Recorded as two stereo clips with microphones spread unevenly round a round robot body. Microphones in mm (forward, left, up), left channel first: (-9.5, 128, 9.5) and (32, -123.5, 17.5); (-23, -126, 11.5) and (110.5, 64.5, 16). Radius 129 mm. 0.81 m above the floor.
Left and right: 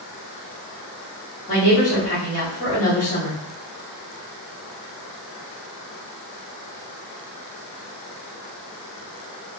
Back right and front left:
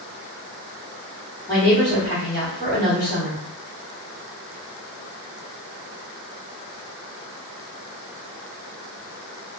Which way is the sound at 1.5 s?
160° left.